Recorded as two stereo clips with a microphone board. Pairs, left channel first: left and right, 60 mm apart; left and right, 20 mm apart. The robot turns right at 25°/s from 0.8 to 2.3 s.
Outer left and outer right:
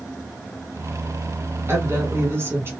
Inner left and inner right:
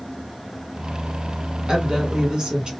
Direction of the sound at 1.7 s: 40° right (ahead or behind).